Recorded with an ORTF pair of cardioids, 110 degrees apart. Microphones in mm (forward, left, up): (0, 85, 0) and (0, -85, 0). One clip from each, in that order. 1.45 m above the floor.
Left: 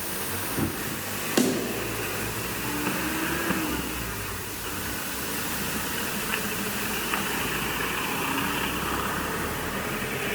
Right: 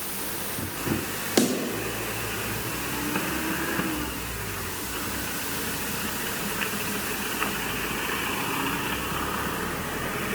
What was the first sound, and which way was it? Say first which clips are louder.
A snare drum: right 1 dB; 15° right.